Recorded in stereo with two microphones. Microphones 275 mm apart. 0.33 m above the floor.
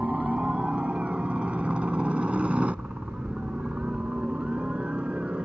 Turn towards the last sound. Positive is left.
turn(degrees=-5)  # may be behind; listen again after turning